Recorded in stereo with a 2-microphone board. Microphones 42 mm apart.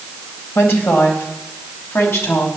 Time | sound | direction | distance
0.6 | a woman speaking | 80° left | 3.5 m